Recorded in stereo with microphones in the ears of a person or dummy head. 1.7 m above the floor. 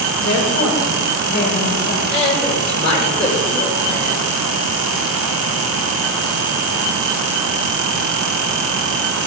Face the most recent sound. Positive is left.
turn(degrees=35)  # may be behind; listen again after turning